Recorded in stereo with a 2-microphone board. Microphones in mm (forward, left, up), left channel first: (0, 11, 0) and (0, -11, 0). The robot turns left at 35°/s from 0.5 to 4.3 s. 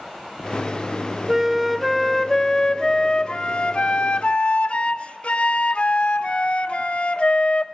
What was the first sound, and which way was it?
A flute, 160° right.